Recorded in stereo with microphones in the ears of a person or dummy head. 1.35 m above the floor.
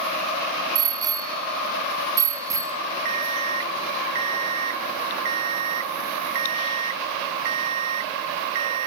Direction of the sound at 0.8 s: 20° right (ahead or behind).